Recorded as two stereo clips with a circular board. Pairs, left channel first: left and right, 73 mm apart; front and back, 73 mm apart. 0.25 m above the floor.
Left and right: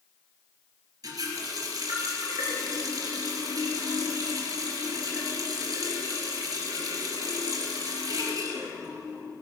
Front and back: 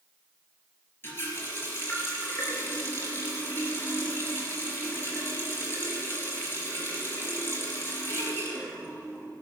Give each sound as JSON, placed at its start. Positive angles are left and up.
{"t": 1.0, "sound": "a running tap", "azimuth_deg": -60, "distance_m": 3.5}